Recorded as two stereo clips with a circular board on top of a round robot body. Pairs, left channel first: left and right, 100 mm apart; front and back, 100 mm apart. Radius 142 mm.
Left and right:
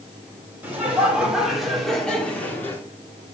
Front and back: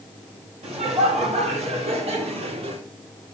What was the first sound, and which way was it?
Laughter, 165° right.